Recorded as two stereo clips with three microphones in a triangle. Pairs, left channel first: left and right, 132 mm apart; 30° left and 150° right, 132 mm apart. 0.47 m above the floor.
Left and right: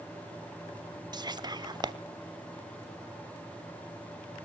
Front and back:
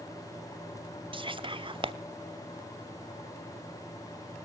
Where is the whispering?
130° right, 1.0 m.